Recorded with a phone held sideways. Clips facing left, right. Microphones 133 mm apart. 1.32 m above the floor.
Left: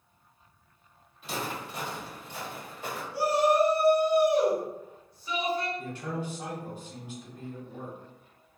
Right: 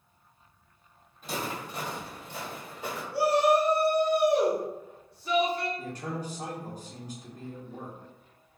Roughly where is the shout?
Right.